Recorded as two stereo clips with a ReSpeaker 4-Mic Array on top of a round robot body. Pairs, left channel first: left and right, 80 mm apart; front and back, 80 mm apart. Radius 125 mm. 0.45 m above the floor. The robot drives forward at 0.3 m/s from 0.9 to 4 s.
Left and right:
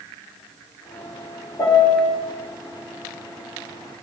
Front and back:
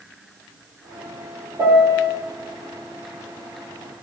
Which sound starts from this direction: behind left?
A piano, at 1.6 s.